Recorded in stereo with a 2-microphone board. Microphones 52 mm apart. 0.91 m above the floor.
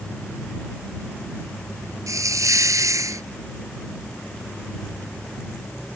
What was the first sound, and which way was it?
A hiss, 90° right.